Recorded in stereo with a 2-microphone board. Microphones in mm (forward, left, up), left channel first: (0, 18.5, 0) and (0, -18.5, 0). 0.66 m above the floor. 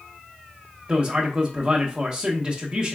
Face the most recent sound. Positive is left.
turn(degrees=-25)  # may be behind; listen again after turning